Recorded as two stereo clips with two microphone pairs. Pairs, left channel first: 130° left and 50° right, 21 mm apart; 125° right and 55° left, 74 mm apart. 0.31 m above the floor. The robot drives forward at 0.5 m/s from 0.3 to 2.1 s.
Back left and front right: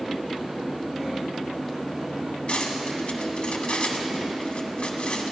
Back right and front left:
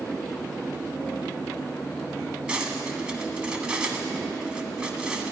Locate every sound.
2.5 s cutlery clinking: 130° left, 1.4 m